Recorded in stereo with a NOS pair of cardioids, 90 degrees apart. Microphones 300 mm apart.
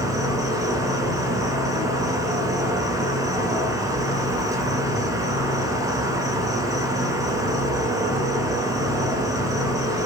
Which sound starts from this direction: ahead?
An insect, at 0.0 s.